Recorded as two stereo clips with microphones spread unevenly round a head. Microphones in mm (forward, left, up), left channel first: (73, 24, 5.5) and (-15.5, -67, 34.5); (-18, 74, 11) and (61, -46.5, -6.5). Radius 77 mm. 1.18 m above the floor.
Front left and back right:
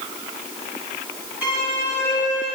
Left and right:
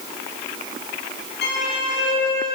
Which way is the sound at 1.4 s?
150° left.